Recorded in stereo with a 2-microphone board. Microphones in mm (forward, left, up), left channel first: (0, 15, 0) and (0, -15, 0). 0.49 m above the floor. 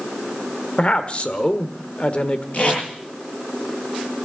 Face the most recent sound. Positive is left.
turn(degrees=35)  # may be behind; listen again after turning